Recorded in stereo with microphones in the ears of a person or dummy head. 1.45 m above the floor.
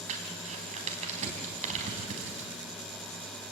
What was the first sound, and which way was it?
Crumpling, 40° right (ahead or behind).